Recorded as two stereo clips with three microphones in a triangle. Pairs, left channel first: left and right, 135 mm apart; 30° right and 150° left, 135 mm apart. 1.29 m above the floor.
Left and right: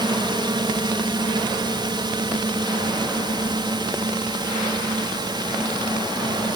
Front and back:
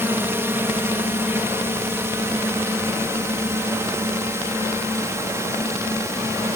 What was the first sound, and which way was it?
A drone, 140° right.